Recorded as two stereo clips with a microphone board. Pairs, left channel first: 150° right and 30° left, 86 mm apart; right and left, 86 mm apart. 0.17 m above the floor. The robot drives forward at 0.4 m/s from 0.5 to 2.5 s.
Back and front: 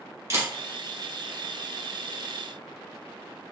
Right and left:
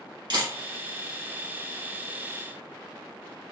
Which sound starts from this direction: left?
A camera shutter, at 0.3 s.